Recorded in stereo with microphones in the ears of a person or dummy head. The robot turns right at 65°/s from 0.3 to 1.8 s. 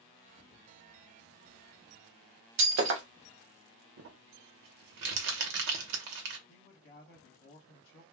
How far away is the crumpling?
About 0.7 m.